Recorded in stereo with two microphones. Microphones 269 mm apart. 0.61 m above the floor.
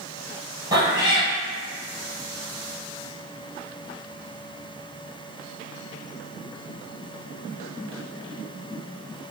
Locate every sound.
0.7 s a cat meowing: 15° right (ahead or behind), 1.2 m